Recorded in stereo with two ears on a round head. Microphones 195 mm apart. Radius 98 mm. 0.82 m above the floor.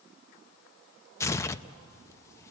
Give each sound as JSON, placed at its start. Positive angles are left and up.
{"t": 1.2, "sound": "tearing paper", "side_deg": 15, "distance_m": 0.5}